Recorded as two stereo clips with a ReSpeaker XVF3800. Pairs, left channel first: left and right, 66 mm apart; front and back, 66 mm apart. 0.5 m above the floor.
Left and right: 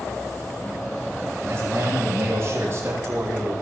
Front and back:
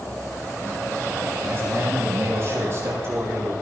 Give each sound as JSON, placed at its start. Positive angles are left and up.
{"t": 1.5, "sound": "a man speaking", "azimuth_deg": -135, "distance_m": 9.5}